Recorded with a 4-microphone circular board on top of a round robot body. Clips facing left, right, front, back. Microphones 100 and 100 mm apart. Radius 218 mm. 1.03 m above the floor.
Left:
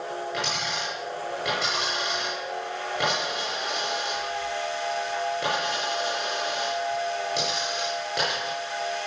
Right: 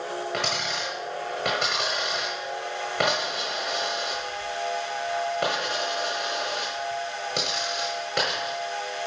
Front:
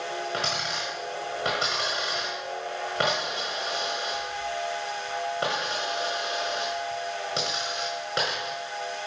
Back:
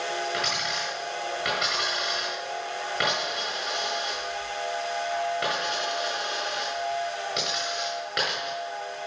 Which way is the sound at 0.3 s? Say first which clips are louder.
Right 1 dB, even; 60° right.